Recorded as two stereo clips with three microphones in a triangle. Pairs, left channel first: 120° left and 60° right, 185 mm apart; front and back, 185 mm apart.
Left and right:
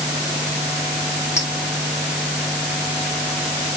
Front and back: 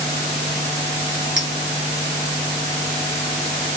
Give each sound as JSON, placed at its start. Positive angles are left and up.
{"t": 1.4, "sound": "a clink", "azimuth_deg": -165, "distance_m": 1.6}